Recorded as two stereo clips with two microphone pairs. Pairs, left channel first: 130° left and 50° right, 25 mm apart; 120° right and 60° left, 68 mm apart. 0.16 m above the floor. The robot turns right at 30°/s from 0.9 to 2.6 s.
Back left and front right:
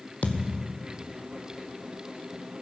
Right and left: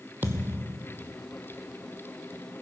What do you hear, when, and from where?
0.2 s a thud: 120° left, 1.0 m